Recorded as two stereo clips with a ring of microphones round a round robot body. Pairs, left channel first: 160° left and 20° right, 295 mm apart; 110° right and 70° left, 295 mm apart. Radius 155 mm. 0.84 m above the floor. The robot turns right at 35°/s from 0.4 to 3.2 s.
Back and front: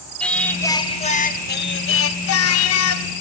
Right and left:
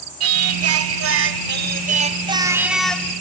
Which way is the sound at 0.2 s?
70° left.